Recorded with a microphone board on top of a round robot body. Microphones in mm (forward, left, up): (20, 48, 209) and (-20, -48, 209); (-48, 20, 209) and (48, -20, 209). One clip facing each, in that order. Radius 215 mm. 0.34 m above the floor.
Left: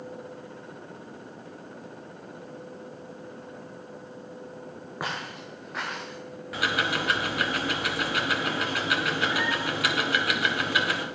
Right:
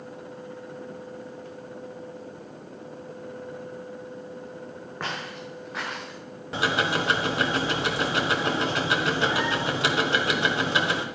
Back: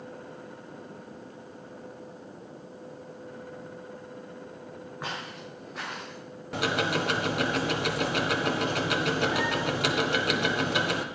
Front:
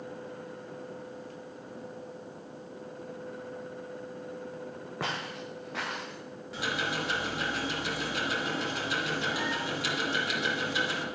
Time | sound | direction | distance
5.0 | footsteps | 10° right | 2.5 m
6.5 | ticking | 175° right | 1.2 m